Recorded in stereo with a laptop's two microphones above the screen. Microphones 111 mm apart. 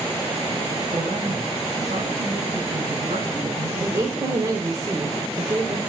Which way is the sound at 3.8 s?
35° right (ahead or behind).